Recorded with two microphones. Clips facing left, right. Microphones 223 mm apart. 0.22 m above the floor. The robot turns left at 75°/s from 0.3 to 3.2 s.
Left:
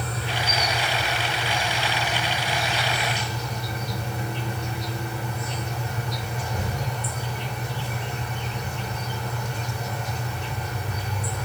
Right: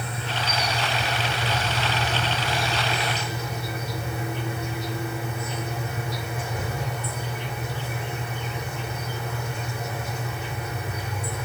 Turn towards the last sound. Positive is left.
turn(degrees=-175)